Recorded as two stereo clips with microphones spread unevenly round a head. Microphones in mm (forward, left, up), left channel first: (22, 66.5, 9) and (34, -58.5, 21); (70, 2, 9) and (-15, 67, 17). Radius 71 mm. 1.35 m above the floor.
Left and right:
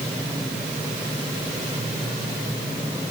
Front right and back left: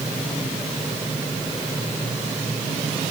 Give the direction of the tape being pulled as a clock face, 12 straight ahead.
No tape being pulled in this recording.